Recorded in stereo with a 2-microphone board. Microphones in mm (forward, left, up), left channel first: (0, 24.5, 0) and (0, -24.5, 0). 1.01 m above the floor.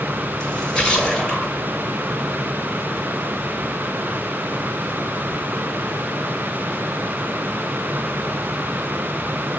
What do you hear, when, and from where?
0.4 s a splash: 20° left (ahead or behind), 6.5 m